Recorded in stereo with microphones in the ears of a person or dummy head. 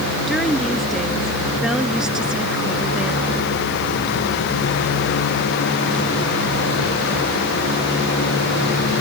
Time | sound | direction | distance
0.3 | a woman speaking | centre (ahead or behind) | ?